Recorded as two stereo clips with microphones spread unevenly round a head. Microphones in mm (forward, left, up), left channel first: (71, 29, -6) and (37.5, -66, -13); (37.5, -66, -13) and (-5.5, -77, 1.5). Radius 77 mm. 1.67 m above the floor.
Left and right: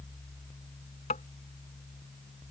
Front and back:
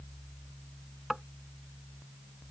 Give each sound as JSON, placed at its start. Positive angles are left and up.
{"t": 1.1, "sound": "tapping", "azimuth_deg": 110}